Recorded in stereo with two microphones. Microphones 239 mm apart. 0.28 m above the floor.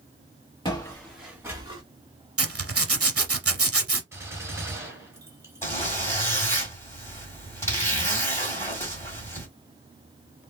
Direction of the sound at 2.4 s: 70° right (ahead or behind).